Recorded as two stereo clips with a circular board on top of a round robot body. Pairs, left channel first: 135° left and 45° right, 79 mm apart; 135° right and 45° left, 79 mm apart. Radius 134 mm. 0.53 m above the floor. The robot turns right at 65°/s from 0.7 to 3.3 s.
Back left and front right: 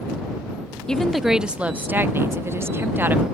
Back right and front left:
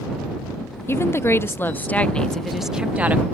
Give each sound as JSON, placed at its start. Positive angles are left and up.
{"t": 0.9, "sound": "a woman speaking", "azimuth_deg": -150}